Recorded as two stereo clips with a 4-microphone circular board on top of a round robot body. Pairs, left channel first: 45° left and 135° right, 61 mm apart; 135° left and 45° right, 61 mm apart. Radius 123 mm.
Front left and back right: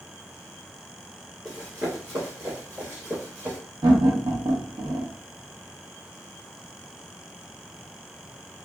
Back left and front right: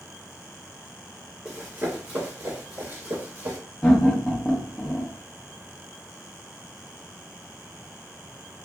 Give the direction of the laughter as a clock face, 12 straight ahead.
5 o'clock.